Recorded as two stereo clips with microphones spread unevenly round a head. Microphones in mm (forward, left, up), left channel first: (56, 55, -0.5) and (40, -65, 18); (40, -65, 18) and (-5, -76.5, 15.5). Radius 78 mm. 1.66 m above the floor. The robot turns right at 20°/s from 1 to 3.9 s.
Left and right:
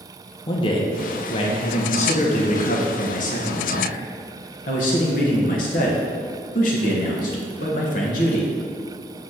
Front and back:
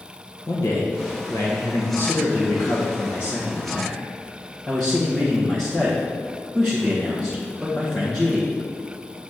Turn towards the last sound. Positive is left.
turn(degrees=95)